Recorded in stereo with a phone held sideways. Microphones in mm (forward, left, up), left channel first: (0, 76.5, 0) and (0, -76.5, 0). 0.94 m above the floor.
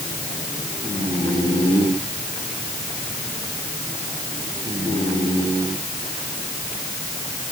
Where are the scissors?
I don't hear scissors.